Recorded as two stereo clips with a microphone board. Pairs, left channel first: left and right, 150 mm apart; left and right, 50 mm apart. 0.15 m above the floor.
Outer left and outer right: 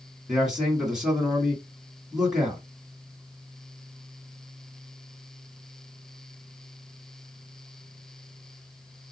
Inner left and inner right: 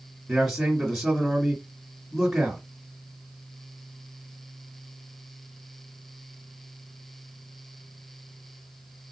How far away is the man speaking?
About 1.5 m.